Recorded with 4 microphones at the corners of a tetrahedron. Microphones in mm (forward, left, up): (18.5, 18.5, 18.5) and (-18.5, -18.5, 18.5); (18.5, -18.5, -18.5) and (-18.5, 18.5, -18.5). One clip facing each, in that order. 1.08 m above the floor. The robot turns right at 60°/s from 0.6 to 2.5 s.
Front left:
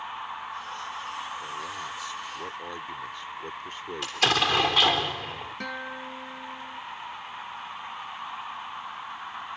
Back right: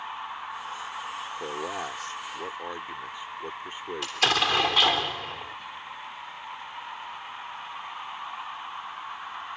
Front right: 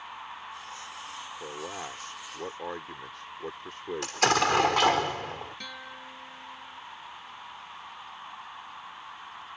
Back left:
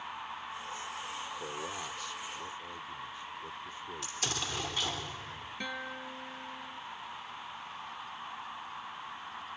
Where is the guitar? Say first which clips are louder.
Front left 4 dB, back left 3 dB; 65° left.